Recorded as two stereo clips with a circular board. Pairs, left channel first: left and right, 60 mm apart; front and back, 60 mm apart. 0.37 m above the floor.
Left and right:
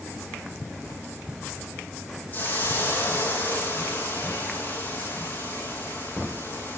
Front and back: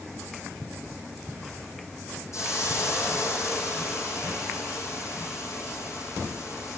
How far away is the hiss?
About 6 m.